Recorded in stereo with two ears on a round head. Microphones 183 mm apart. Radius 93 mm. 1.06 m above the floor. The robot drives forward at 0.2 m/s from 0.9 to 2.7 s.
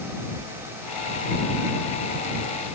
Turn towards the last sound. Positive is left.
No sound to turn to.